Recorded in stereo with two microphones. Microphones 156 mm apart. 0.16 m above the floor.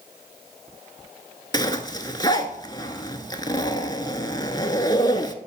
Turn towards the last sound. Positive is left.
turn(degrees=25)  # may be behind; listen again after turning